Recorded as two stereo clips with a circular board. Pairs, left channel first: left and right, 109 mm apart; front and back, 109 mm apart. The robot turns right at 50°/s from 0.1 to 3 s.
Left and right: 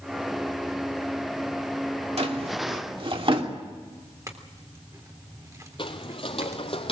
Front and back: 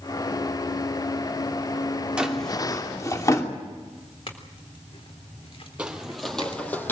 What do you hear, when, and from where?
2.2 s a drawer: 100° right, 2.5 m; by 3.5 s 60° right, 2.5 m
4.3 s a clink: 30° right, 3.5 m
5.8 s footsteps: 105° left, 2.5 m; by 6.9 s 70° left, 3 m